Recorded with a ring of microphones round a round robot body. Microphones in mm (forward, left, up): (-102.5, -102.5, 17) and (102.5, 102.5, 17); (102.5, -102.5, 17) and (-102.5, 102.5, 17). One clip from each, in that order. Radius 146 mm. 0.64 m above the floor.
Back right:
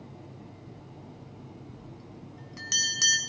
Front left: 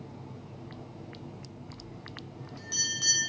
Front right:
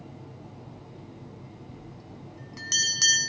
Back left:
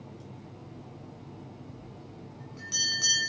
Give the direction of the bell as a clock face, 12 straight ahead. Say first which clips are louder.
Front left 3 dB, front right 1 dB; 3 o'clock.